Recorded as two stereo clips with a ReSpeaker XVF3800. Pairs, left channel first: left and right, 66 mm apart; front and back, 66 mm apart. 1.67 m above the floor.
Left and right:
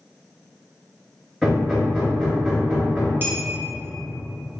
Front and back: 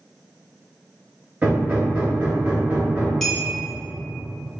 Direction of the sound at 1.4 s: Straight behind.